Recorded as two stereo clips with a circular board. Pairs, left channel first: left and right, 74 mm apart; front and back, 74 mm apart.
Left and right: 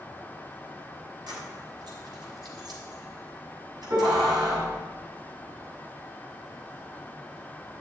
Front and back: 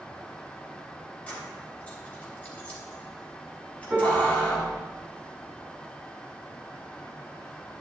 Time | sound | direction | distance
1.3 | keys jangling | 70° right | 3.5 m
3.9 | a piano | 90° right | 6.5 m